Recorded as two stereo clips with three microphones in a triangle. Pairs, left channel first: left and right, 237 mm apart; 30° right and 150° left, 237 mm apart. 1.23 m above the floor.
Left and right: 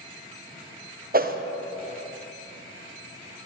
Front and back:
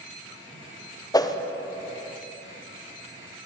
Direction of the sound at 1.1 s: 95° right.